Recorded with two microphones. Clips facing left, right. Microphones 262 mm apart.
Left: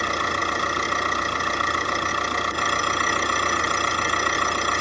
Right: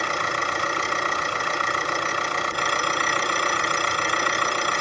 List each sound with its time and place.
0.0 s an engine running: 45° left (ahead or behind), 1.8 m